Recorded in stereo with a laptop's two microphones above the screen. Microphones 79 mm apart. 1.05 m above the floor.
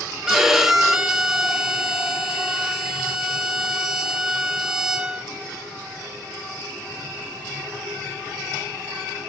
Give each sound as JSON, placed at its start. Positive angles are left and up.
{"t": 0.3, "sound": "a violin", "side_deg": -5, "distance_m": 1.0}